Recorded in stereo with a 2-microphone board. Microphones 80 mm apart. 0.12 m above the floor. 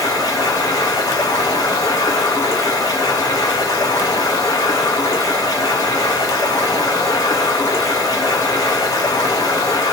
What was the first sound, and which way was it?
Running water, 50° left (ahead or behind).